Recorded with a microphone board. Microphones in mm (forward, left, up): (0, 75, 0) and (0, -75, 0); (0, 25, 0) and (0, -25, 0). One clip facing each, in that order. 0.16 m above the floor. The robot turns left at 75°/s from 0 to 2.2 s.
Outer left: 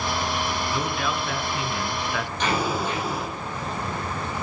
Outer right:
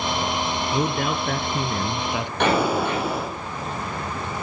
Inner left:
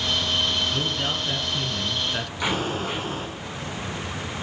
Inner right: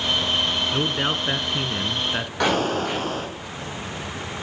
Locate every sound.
0.7 s a man speaking: 40° right, 1.5 m; by 2.3 s 155° right, 1.5 m
2.4 s an explosion: 65° right (ahead or behind), 5 m